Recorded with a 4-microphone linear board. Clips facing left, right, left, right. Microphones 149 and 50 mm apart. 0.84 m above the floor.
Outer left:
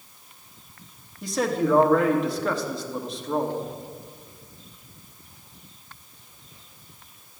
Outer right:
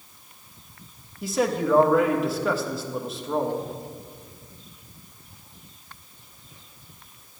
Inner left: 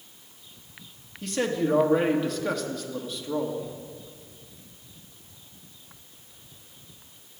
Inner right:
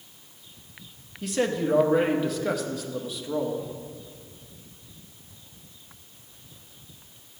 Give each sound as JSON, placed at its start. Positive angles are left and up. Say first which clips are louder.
{"t": 1.2, "sound": "a man speaking", "louder": "even, even", "side_deg": -5, "distance_m": 1.2}